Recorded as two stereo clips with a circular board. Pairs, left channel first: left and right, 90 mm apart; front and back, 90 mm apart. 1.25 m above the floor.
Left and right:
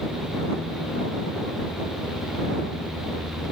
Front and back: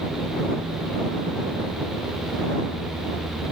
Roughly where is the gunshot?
No gunshot in this recording.